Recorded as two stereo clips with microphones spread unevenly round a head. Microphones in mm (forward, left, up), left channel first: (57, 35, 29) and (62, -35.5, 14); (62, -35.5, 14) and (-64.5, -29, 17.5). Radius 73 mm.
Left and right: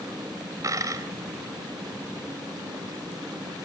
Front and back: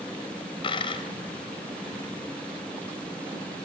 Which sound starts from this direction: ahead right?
A dropped coin, at 0.6 s.